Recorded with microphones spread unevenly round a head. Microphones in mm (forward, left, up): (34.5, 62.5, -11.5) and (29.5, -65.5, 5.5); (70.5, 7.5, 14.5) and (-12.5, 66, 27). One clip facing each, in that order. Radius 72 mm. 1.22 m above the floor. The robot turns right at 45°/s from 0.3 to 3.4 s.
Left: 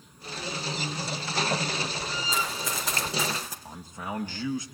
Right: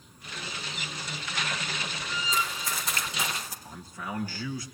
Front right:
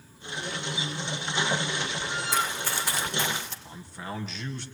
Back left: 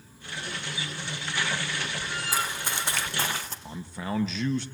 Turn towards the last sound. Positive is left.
turn(degrees=160)